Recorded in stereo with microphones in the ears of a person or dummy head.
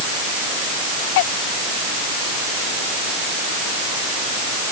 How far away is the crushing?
I don't hear crushing.